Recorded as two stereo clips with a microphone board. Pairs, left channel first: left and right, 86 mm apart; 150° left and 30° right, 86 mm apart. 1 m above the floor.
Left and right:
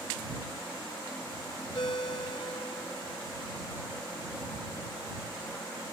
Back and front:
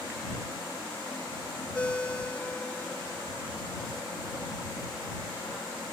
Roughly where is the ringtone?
Left.